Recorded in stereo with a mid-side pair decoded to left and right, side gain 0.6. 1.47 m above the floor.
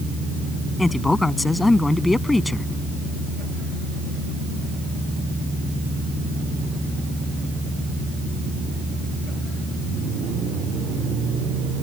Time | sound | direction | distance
0.8 | a man speaking | 10° left | ?